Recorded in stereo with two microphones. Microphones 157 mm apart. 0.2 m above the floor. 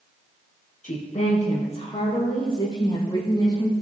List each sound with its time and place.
0.8 s a woman speaking: 50° left (ahead or behind), 4.5 m; by 3.7 s 25° left (ahead or behind), 7 m